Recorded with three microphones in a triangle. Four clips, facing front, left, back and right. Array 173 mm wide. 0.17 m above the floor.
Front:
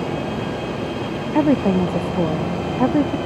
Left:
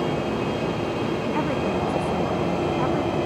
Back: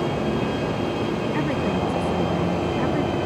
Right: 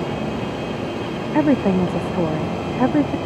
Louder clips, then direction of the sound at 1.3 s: Right 12 dB, front 12 dB; 45° right.